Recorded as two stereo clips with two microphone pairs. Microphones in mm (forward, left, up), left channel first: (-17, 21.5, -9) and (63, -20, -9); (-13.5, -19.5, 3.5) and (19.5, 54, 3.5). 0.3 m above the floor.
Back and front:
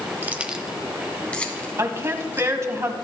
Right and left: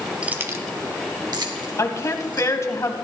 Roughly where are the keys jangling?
Ahead.